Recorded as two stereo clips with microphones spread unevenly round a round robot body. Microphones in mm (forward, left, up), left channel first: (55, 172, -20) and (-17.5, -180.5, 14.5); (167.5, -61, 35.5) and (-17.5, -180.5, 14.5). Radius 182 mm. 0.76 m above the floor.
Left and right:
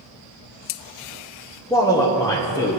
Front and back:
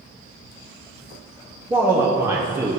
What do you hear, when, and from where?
1.7 s a man speaking: 145° left, 0.8 m